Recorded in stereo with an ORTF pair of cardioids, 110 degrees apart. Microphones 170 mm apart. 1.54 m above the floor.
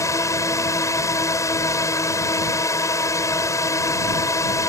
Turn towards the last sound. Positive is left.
turn(degrees=20)